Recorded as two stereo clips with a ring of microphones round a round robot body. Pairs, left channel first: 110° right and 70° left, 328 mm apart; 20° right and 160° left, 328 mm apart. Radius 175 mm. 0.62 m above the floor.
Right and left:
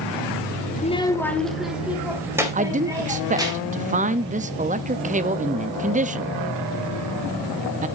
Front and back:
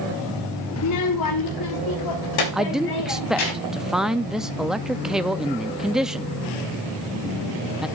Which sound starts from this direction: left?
A man speaking, at 2.5 s.